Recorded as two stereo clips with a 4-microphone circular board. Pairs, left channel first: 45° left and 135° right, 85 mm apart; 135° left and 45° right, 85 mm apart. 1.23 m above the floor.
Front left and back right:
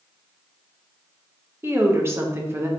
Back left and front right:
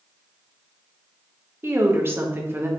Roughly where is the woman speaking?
Right.